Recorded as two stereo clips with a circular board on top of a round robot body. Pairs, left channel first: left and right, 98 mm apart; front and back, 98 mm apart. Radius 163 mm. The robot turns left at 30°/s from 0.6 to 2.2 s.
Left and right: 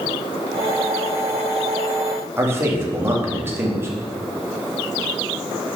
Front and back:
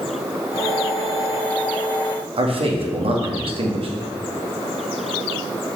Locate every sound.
2.4 s a man speaking: 155° right, 2 m